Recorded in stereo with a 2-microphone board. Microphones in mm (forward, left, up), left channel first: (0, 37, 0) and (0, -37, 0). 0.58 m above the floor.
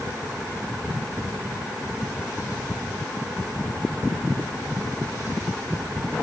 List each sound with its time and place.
Only background noise.